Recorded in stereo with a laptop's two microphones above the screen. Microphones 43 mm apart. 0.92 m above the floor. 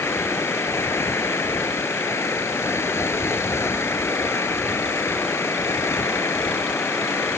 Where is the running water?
75° left (ahead or behind).